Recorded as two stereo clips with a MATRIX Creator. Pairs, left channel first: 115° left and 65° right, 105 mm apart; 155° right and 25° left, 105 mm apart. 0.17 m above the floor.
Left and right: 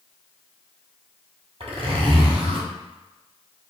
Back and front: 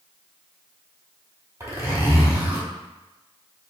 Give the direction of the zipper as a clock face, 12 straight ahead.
1 o'clock.